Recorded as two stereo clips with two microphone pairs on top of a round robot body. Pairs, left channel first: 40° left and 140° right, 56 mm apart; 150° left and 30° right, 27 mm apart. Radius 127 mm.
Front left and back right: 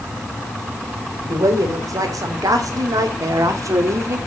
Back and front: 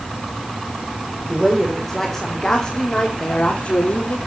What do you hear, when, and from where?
1.3 s a woman speaking: 120° right, 4 m; by 4.2 s 170° right, 3 m